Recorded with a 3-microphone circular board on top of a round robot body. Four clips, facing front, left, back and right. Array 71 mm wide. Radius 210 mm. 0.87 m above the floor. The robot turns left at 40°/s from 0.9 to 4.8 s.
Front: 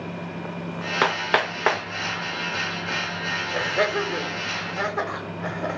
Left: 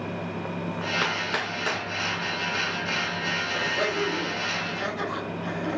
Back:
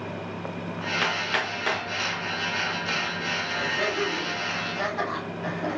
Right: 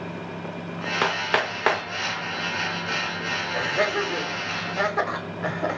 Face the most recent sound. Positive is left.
turn(degrees=-70)